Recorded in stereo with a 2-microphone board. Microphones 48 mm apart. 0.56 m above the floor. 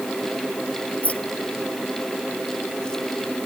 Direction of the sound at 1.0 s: 30° left (ahead or behind).